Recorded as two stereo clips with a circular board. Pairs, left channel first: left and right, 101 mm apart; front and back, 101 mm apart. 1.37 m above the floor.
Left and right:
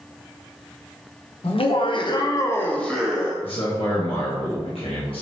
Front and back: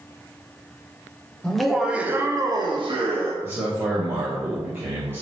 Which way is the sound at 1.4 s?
85° left.